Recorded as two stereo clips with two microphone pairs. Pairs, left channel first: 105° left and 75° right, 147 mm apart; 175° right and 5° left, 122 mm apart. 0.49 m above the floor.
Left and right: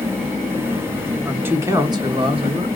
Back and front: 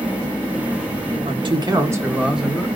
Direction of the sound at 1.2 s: Straight ahead.